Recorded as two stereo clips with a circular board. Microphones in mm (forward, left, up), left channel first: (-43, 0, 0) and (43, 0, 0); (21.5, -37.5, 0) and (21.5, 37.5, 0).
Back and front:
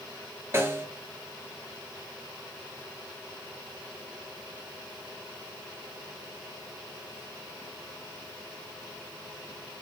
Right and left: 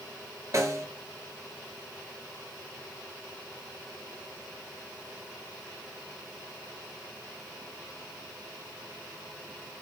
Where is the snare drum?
55° left, 1.9 m.